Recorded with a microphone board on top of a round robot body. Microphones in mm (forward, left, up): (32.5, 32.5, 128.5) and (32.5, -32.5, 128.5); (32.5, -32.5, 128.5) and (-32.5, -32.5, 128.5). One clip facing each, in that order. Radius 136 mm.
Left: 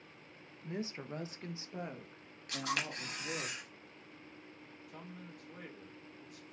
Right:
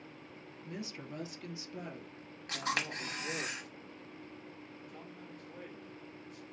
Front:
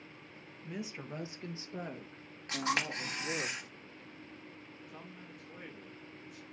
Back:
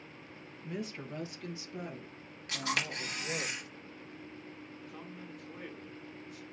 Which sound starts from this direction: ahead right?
A camera shutter, at 2.5 s.